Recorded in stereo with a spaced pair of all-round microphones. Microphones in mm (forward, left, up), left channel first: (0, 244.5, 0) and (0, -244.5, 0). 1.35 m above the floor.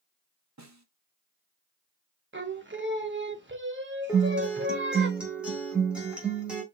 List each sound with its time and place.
0.6 s a snare drum: 35° right (ahead or behind), 0.7 m
2.3 s singing: 20° right (ahead or behind), 0.8 m
4.1 s a guitar: centre (ahead or behind), 1.5 m